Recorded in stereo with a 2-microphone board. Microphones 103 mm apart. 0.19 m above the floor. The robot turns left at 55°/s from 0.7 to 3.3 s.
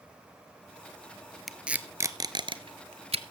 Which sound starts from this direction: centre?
Tape being pulled, at 1.5 s.